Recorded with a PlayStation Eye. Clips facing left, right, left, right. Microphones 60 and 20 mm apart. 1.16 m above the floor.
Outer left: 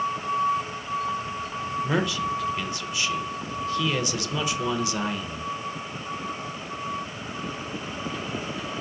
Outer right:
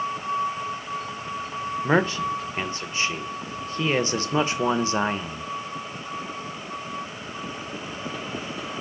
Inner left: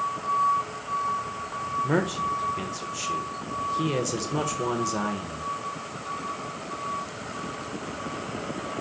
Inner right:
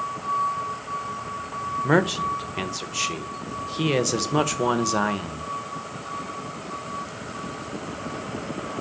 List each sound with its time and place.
1.8 s a man speaking: 40° right (ahead or behind), 0.6 m